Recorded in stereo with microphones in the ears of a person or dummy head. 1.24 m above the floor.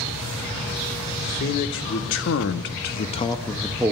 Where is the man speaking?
60° left (ahead or behind), 1.8 m; by 3.9 s 10° right (ahead or behind), 0.8 m.